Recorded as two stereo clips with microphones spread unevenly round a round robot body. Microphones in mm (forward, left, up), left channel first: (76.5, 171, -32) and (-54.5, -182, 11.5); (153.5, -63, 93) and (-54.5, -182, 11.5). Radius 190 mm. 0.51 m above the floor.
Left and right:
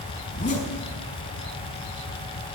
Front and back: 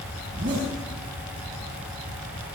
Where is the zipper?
140° left, 5 m.